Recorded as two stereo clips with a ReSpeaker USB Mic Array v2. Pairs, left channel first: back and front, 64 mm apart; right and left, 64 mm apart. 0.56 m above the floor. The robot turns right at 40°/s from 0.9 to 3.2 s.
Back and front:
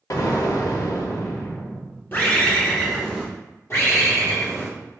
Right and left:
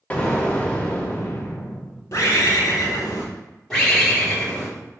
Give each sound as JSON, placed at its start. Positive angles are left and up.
{"t": 0.1, "sound": "an explosion", "azimuth_deg": -160, "distance_m": 0.6}
{"t": 2.1, "sound": "a bird", "azimuth_deg": -125, "distance_m": 1.1}
{"t": 3.7, "sound": "a bird", "azimuth_deg": -170, "distance_m": 1.8}